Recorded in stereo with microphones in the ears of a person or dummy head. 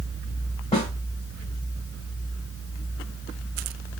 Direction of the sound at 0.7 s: 25° left (ahead or behind).